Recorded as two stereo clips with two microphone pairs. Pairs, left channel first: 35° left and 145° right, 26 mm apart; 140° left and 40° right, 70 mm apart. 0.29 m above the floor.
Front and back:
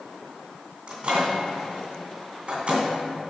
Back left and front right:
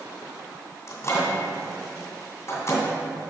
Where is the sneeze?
I don't hear a sneeze.